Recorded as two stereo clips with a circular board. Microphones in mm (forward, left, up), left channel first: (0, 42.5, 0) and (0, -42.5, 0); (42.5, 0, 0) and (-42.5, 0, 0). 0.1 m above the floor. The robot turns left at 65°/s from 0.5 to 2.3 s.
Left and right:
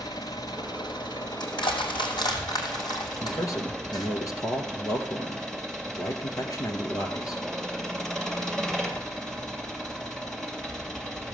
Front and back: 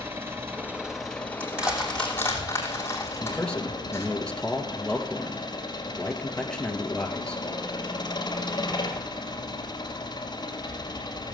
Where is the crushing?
120° left, 2.5 m; by 4.1 s 60° left, 2.5 m.